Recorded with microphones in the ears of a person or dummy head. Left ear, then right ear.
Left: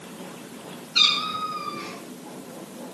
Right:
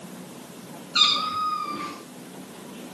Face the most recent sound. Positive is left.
turn(degrees=-50)  # may be behind; listen again after turning